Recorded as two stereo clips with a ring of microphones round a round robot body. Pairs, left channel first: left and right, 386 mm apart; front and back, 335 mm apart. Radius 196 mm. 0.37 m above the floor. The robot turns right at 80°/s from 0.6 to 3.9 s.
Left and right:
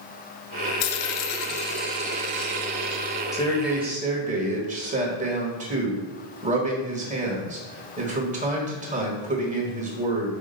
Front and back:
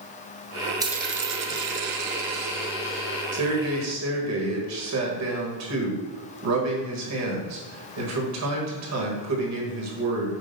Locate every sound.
0.8 s a dropped coin: 100° left, 0.8 m; by 3.2 s 65° right, 0.8 m
3.3 s a man speaking: 155° left, 1.7 m; by 10.3 s 155° right, 1.7 m